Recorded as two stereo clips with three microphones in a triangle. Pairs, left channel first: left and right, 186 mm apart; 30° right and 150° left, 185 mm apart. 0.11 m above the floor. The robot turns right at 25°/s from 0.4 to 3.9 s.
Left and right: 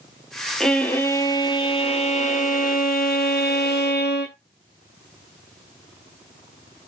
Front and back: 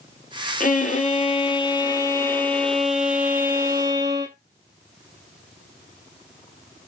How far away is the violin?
About 0.7 m.